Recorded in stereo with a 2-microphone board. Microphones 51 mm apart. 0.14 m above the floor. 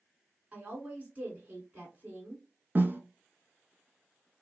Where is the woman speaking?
30° right (ahead or behind), 1.5 m.